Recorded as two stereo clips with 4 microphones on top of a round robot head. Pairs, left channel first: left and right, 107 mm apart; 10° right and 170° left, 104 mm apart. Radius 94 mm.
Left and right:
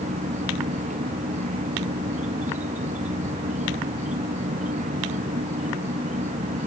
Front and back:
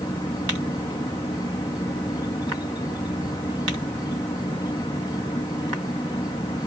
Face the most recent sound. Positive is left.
turn(degrees=-70)